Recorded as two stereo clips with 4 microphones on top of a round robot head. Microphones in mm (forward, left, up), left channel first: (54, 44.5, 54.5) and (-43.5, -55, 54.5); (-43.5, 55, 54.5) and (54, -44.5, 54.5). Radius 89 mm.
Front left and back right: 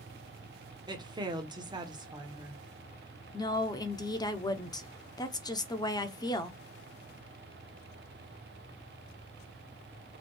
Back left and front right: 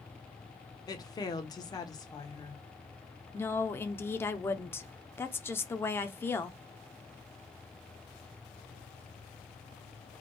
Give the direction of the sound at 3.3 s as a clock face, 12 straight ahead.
10 o'clock.